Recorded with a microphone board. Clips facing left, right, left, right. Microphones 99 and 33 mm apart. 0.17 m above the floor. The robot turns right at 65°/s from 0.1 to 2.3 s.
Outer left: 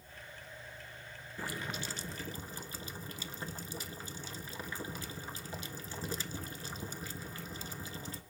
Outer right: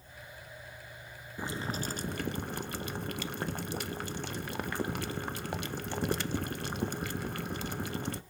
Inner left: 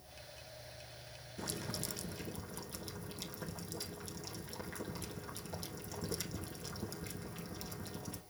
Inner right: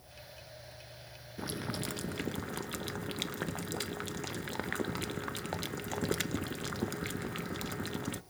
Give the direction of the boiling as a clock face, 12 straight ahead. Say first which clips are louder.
Outer right 4 dB, inner right 5 dB; 5 o'clock.